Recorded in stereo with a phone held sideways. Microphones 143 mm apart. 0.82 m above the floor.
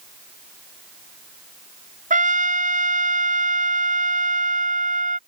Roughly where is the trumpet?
Right.